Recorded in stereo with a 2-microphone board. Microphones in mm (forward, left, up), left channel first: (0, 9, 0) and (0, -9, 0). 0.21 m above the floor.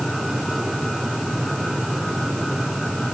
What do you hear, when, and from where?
Only background noise.